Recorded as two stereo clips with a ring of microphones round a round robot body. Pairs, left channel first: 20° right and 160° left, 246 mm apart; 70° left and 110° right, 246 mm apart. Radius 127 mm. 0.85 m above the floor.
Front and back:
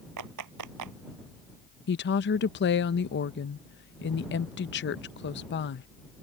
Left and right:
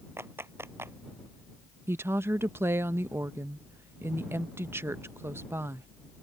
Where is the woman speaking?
35° right.